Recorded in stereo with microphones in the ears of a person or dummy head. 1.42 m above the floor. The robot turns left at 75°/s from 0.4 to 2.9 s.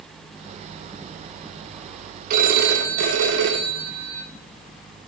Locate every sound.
2.3 s a phone ringing: 50° right, 1.9 m; by 4.3 s 95° right, 1.9 m